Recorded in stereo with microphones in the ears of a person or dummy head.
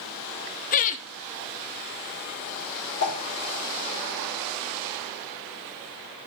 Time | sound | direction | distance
0.7 | laughter | 40° left (ahead or behind) | 0.7 m
3.0 | a whoosh | 45° left (ahead or behind) | 1.9 m